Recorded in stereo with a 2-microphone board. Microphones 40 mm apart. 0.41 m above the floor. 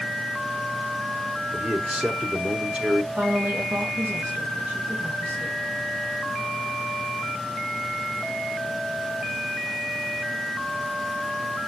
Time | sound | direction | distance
1.5 | a man speaking | 25° right (ahead or behind) | 1.2 m
3.1 | a woman speaking | 45° right (ahead or behind) | 2.5 m